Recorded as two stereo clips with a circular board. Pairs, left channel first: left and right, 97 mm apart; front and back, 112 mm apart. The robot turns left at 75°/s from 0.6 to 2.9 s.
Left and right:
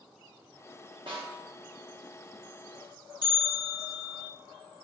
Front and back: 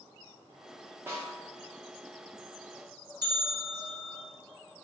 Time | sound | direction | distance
1.1 | a snare drum | 110° right | 1.3 m
3.2 | a bell | 130° left | 1.8 m